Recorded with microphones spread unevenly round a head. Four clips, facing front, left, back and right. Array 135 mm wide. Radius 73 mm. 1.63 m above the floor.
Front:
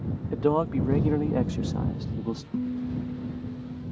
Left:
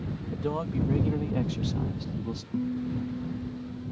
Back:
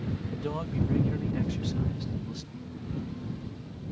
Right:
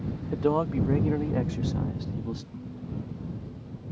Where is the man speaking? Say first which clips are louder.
Right 6 dB, front 13 dB; 40° right; by 2.4 s 5° right.